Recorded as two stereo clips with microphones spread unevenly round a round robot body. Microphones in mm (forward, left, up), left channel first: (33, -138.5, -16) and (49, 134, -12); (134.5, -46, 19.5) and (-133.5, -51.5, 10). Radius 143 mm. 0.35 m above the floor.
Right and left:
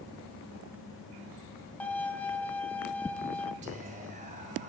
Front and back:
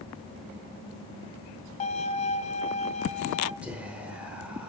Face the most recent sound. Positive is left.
turn(degrees=105)